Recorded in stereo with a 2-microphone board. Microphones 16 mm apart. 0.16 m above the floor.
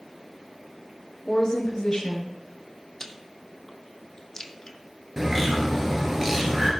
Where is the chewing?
35° left (ahead or behind), 1.0 m.